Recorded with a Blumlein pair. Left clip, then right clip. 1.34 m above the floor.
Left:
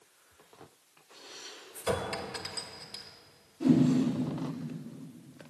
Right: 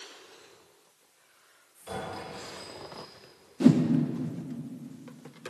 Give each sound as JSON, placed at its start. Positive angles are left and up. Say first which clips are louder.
{"t": 1.8, "sound": "a clink", "louder": "left 5 dB", "azimuth_deg": 35, "distance_m": 0.9}
{"t": 3.6, "sound": "a whoosh", "louder": "right 3 dB", "azimuth_deg": -55, "distance_m": 0.8}